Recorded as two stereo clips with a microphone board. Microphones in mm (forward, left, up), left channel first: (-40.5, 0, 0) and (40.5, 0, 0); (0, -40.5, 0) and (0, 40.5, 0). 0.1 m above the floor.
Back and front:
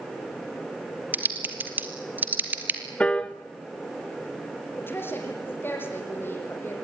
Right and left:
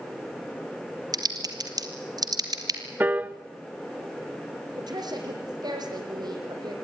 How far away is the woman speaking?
About 4.5 m.